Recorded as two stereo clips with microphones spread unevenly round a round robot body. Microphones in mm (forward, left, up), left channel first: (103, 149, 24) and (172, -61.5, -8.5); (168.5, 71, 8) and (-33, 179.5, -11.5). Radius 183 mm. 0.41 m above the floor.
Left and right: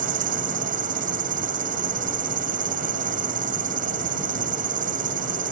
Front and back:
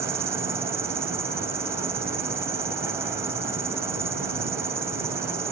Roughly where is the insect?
Behind right.